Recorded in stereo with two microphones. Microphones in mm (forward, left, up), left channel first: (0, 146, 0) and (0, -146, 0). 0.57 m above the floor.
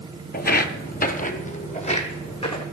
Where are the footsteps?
30° left (ahead or behind), 0.6 m; by 2.6 s 15° left (ahead or behind), 1.4 m.